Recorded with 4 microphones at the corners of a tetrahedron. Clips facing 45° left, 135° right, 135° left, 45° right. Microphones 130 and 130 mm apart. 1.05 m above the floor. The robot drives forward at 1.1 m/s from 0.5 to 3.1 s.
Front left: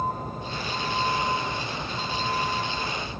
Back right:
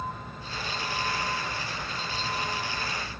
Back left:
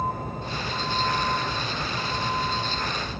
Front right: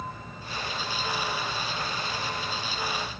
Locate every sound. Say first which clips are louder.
0.0 s a vehicle: front left 7 dB, back left 9 dB; 95° left; by 3.2 s 100° left